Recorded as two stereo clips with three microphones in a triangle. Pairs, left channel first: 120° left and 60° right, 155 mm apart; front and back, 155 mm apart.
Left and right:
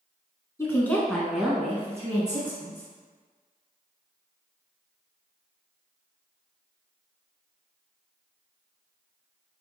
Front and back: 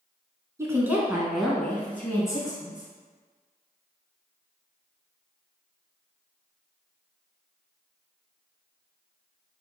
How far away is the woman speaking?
About 1.1 m.